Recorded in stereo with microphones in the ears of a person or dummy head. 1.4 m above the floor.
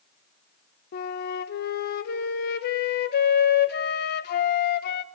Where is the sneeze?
I don't hear a sneeze.